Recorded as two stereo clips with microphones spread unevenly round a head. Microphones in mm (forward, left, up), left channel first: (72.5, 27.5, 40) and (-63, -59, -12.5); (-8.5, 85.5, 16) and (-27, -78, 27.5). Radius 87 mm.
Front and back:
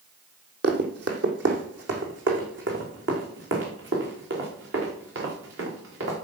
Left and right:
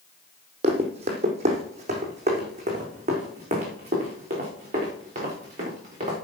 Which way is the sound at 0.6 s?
130° right.